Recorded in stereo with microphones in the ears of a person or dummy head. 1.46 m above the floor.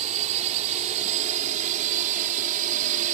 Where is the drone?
35° right (ahead or behind); by 3.1 s 40° right (ahead or behind).